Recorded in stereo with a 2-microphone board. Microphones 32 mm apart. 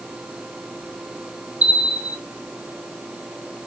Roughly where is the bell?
Right.